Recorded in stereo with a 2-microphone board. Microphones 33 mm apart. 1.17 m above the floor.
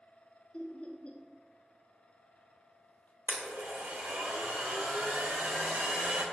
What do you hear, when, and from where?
0.5 s laughter: 35° left (ahead or behind), 0.5 m
3.3 s a blender: 65° right (ahead or behind), 0.6 m